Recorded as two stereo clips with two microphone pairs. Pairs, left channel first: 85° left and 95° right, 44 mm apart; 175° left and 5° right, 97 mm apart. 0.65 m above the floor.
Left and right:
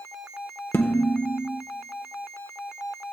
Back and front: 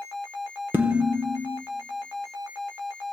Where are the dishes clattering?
65° left, 1.1 m.